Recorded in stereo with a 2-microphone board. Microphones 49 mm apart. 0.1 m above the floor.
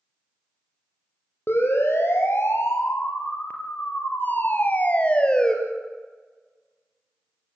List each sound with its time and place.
1.5 s a siren: 50° left (ahead or behind), 5 m; by 5.5 s 15° left (ahead or behind), 3 m